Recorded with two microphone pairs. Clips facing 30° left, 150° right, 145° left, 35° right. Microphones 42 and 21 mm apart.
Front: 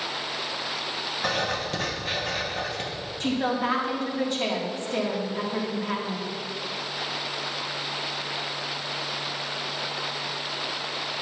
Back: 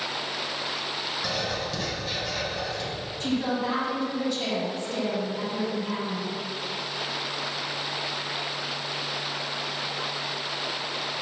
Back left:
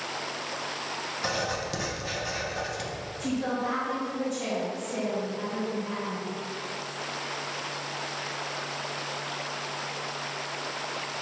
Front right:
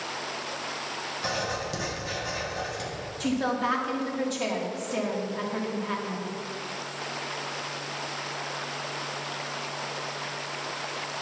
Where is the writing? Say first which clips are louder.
Front 5 dB, even; 70° left, 1.3 m.